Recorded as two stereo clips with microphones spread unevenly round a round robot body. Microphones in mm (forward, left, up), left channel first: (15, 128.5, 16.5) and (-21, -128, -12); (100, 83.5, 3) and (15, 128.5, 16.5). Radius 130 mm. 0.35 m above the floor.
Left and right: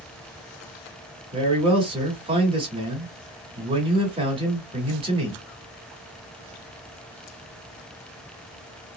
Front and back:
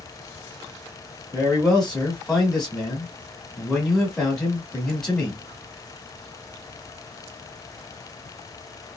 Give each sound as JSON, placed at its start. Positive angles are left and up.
{"t": 1.3, "sound": "a man speaking", "azimuth_deg": -90, "distance_m": 1.1}